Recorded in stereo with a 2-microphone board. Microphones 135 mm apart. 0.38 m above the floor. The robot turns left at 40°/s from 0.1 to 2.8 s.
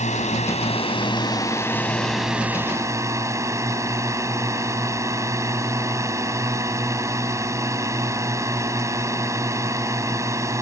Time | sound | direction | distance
0.0 | a drone | 85° left | ?